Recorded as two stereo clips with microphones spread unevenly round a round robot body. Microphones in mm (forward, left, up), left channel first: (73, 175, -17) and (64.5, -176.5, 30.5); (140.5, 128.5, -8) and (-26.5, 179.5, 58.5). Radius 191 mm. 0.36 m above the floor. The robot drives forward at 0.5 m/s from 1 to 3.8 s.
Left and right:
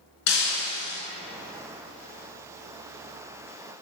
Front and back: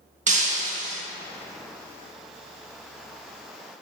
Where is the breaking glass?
120° left, 0.6 m.